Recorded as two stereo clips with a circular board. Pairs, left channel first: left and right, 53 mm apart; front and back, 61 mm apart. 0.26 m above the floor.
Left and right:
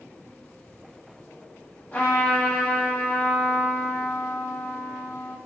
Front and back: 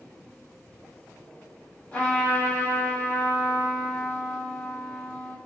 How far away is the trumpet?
About 1.3 m.